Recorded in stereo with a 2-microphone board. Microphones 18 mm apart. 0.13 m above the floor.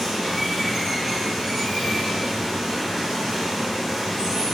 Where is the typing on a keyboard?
I don't hear typing on a keyboard.